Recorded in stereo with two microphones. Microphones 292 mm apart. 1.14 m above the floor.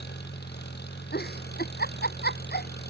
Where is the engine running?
35° left (ahead or behind).